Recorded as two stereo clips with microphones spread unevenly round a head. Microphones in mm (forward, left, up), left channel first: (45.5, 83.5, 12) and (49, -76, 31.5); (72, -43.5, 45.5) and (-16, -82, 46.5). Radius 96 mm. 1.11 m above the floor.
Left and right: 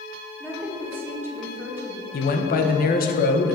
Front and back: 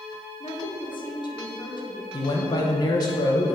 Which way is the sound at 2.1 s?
75° left.